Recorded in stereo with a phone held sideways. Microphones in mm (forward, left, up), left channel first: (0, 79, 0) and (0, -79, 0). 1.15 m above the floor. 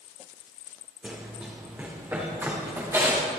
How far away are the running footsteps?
About 4 m.